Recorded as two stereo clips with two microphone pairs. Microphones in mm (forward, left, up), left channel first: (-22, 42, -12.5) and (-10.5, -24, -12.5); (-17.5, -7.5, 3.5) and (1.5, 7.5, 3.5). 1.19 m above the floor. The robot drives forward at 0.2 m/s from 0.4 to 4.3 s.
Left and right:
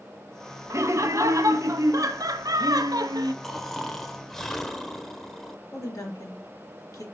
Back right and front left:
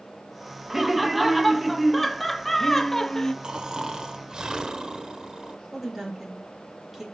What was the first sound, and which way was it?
Laughter, 40° right.